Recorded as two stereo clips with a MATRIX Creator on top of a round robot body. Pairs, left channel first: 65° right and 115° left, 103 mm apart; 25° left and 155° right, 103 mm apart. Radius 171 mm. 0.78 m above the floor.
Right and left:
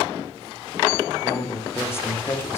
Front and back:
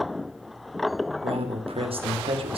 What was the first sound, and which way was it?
A man speaking, 135° right.